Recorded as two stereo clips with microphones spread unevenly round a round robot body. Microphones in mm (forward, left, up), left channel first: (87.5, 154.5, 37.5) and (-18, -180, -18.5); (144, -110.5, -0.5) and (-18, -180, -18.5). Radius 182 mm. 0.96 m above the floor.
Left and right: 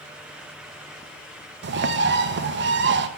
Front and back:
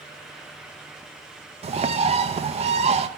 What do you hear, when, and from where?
1.6 s a bird: 135° right, 0.6 m